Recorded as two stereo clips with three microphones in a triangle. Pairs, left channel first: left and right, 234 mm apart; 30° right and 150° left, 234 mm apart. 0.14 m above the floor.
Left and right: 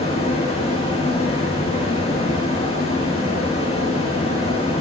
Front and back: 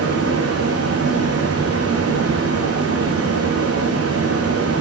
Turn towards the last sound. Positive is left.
turn(degrees=155)